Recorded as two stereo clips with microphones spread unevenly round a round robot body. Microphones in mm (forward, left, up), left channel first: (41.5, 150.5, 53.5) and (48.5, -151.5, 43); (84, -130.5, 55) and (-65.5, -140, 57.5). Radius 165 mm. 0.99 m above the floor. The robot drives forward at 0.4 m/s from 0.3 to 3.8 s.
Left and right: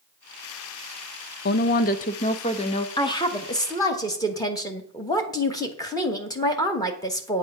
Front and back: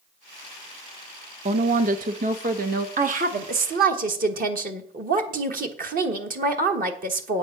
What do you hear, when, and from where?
1.4 s a woman speaking: 145° left, 0.6 m; by 2.9 s 165° left, 1.1 m
3.0 s a woman speaking: 165° left, 1.0 m; by 7.4 s 170° left, 1.3 m